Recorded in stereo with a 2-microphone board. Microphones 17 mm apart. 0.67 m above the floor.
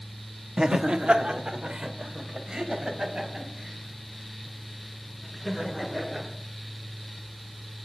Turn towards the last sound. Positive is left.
turn(degrees=-45)  # may be behind; listen again after turning